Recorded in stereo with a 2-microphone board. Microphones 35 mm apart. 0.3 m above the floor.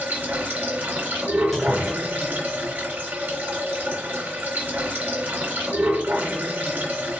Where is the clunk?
5° left (ahead or behind), 1.5 m.